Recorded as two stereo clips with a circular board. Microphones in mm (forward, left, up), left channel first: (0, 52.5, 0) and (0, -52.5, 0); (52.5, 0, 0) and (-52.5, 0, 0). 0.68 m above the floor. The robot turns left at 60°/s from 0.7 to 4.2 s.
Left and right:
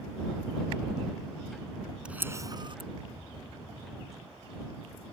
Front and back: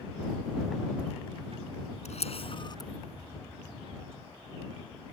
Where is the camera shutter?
10° right; by 2.9 s 60° right.